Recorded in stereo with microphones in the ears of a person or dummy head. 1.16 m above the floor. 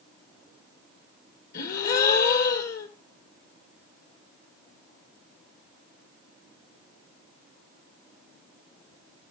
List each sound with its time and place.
1.5 s a gasp: 65° left (ahead or behind), 3.5 m